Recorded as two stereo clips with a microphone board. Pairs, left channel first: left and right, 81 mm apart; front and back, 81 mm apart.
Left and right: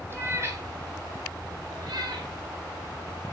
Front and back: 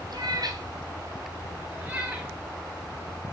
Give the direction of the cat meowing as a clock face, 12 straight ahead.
5 o'clock.